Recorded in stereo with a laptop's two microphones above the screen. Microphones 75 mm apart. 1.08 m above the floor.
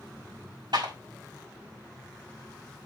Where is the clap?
75° right (ahead or behind), 6 m.